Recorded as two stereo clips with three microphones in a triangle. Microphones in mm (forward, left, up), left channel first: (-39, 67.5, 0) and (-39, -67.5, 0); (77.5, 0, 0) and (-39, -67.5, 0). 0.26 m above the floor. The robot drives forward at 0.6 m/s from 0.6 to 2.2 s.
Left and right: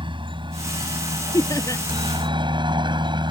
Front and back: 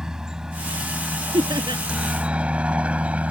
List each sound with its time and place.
0.0 s a helicopter: 65° right; by 3.3 s 75° right
1.3 s laughter: 155° left